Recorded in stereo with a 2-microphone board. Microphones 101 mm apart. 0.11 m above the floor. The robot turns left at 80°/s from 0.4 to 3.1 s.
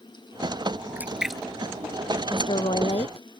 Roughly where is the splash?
Right.